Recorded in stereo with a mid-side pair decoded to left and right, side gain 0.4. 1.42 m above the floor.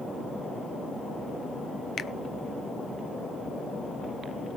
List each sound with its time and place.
2.0 s a finger snap: 55° left, 0.5 m